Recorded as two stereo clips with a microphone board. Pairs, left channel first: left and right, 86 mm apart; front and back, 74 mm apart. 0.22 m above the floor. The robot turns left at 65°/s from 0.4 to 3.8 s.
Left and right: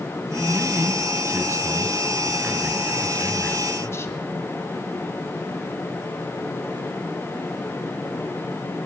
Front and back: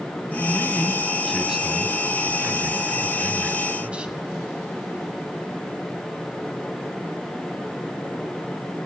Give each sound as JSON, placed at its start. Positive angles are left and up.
{"t": 0.3, "sound": "a man speaking", "azimuth_deg": -25, "distance_m": 1.5}